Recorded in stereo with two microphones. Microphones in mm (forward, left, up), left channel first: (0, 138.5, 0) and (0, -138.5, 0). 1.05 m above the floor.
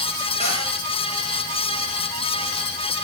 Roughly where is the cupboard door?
Left.